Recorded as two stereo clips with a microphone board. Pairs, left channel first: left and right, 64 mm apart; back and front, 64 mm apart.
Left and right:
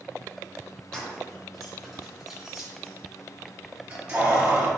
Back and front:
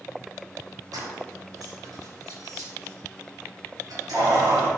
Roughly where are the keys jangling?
Ahead.